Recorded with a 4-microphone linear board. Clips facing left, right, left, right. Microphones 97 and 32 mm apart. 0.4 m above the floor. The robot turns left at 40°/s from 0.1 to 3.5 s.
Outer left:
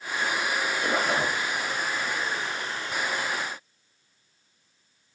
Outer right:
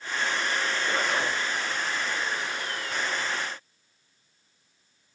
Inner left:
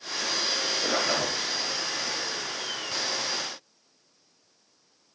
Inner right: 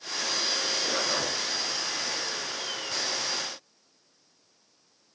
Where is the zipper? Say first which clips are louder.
Outer left 3 dB, inner left 2 dB; 45° left (ahead or behind), 3 m; by 1.4 s 25° left (ahead or behind), 3 m.